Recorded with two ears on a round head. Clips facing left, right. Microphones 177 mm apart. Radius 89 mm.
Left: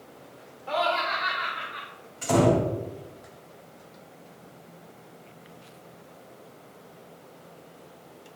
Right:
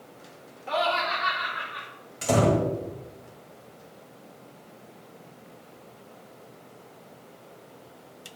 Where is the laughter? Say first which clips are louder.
Even; 30° right (ahead or behind), 1.6 m; by 1.9 s 70° right (ahead or behind), 2.0 m.